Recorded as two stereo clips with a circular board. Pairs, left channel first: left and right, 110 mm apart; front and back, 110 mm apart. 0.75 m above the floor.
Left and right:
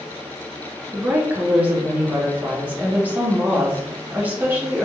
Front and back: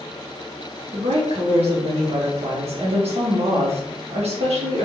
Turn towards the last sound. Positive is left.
turn(degrees=-165)